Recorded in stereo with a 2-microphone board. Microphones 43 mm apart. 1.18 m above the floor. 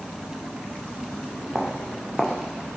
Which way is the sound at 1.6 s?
15° left (ahead or behind).